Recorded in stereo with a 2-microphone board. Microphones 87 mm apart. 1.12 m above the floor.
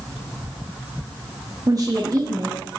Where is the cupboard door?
No cupboard door in this recording.